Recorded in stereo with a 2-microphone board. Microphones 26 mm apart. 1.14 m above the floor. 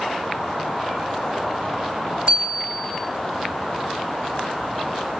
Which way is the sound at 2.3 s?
45° right (ahead or behind).